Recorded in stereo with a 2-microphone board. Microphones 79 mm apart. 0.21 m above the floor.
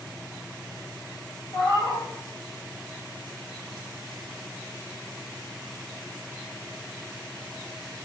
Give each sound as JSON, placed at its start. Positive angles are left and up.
{"t": 1.5, "sound": "a cat meowing", "side_deg": 70, "distance_m": 3.0}